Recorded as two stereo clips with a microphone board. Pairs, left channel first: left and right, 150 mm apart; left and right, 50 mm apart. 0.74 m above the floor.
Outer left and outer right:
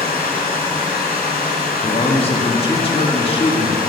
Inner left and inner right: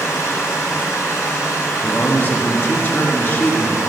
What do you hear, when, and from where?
0.0 s running water: 70° left (ahead or behind), 2.5 m
1.8 s a man speaking: 35° left (ahead or behind), 1.3 m